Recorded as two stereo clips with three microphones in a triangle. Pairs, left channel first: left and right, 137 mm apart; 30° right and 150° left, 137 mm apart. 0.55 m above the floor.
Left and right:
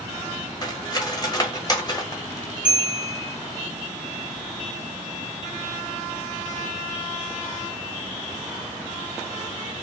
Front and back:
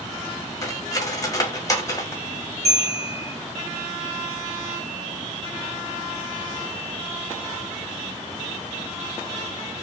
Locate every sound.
0.6 s cutlery clinking: 30° left, 0.9 m
2.6 s a bell: 170° right, 2.5 m